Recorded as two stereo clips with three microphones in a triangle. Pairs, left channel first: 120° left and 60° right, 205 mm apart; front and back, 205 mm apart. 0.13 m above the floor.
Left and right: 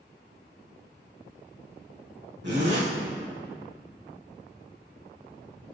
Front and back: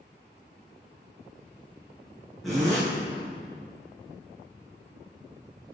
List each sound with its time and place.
2.4 s a zipper: 90° right, 2.5 m